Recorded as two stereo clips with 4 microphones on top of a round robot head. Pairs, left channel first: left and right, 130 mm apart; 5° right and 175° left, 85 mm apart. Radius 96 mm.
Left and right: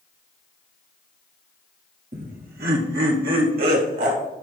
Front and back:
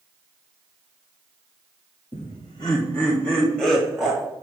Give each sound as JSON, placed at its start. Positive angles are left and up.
{"t": 2.1, "sound": "laughter", "azimuth_deg": -45, "distance_m": 1.0}